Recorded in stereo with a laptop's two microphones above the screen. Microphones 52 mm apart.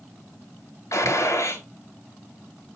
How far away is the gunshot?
About 2.5 m.